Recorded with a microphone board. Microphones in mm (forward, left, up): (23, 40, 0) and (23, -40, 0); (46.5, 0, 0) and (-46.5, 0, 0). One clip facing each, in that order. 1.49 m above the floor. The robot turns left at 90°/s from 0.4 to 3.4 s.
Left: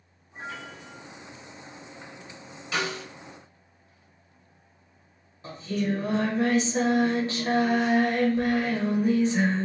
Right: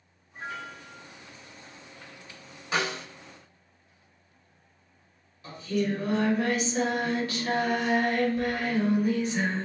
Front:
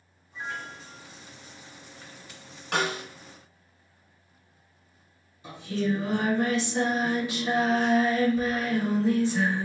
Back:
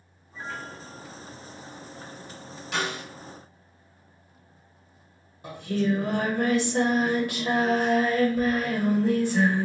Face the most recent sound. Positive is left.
turn(degrees=150)